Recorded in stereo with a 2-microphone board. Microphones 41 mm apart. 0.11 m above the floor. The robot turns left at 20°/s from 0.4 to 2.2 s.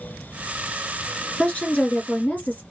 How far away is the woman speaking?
About 1.5 m.